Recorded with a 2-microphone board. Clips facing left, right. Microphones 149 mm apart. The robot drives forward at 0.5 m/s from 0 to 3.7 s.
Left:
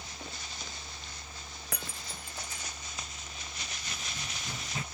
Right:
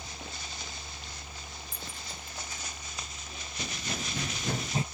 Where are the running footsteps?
55° right (ahead or behind); by 4.8 s 25° right (ahead or behind).